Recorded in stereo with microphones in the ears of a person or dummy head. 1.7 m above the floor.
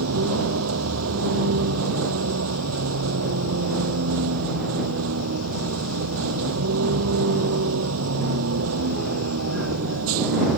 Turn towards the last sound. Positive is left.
turn(degrees=-85)